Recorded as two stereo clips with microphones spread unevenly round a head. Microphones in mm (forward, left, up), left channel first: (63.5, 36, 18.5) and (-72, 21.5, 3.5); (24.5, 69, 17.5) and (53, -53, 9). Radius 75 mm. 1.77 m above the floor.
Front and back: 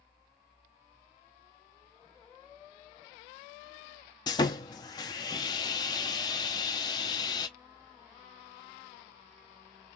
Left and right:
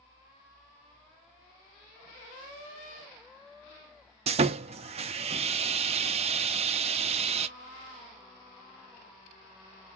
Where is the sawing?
45° right, 0.5 m.